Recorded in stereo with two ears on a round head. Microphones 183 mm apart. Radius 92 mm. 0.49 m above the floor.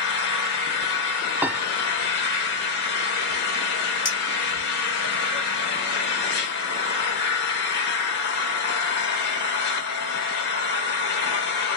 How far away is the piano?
About 0.5 m.